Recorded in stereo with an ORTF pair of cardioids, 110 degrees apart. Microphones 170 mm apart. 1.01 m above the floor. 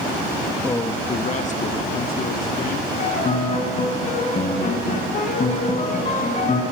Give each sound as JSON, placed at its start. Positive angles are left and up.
{"t": 0.6, "sound": "a man speaking", "azimuth_deg": 15, "distance_m": 1.0}
{"t": 3.0, "sound": "a piano", "azimuth_deg": 45, "distance_m": 4.0}